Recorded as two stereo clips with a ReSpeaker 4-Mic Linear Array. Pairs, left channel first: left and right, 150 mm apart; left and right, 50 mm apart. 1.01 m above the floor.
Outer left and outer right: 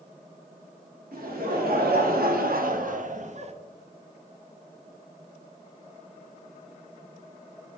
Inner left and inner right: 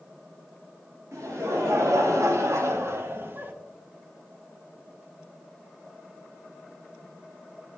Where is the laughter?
75° right (ahead or behind), 1.6 m; by 3.5 s 45° right (ahead or behind), 1.0 m.